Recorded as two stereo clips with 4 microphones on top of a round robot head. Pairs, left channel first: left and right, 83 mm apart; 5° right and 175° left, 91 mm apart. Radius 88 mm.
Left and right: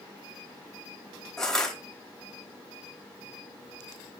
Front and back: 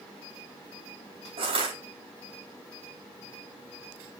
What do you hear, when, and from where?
1.4 s crushing: 175° left, 3 m